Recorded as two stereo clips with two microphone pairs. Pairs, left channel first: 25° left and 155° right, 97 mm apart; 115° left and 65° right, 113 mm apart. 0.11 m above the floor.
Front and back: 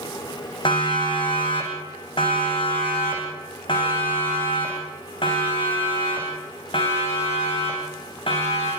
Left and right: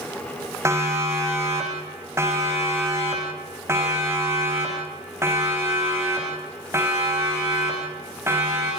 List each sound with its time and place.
0.7 s a siren: 5° right, 9 m; by 8.7 s straight ahead, 13.5 m